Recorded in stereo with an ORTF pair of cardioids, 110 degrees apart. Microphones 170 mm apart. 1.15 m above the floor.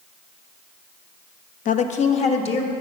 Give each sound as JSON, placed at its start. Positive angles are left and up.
{"t": 1.6, "sound": "a woman speaking", "azimuth_deg": 50, "distance_m": 0.8}